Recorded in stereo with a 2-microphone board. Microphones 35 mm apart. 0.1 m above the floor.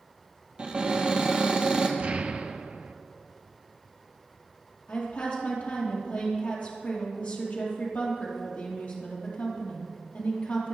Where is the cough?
No cough in this recording.